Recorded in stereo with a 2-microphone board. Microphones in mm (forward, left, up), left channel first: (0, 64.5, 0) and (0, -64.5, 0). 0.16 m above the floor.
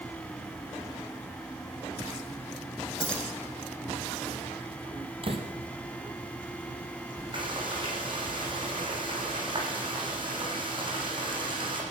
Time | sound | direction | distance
3.0 | keys jangling | 10° left (ahead or behind) | 6 m
5.2 | a door slam | 45° right (ahead or behind) | 4 m
7.3 | frying | 40° right (ahead or behind) | 7.5 m